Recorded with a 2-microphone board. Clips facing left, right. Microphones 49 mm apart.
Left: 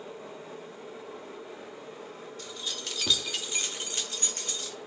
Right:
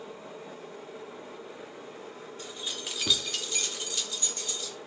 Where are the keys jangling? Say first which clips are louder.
Right 1 dB; 25° right (ahead or behind), 0.7 m; by 4.8 s 55° left (ahead or behind), 0.9 m.